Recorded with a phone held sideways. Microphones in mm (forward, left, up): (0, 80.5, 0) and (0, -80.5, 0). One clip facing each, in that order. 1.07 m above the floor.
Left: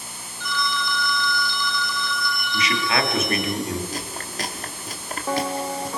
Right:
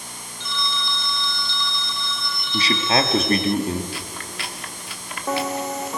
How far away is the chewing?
About 1.4 m.